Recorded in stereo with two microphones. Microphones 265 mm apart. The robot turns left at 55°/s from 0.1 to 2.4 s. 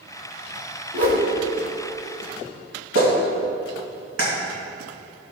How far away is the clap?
About 2.5 m.